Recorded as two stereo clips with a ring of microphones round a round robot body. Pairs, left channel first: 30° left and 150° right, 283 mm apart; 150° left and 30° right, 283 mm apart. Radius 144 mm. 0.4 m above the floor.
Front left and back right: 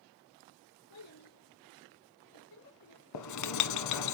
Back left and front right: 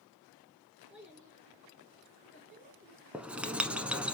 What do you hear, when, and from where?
0.9 s a child speaking: 55° left, 5 m; by 3.0 s 25° left, 3.5 m
3.1 s writing: 55° left, 0.9 m